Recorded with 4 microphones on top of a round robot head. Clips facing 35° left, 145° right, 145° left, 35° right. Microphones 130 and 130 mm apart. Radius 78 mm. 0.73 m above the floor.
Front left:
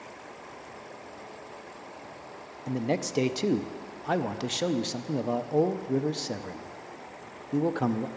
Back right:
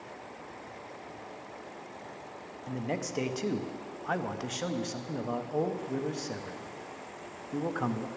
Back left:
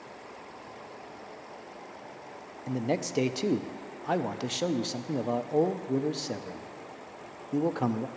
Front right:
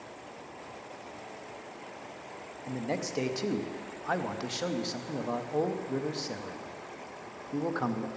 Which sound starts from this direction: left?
A man speaking, at 2.7 s.